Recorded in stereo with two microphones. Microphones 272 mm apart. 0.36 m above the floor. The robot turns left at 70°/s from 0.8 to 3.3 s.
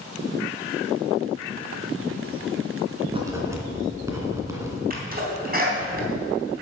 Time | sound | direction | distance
3.1 | writing | 25° right (ahead or behind) | 2 m
4.9 | a sneeze | 35° right (ahead or behind) | 3.5 m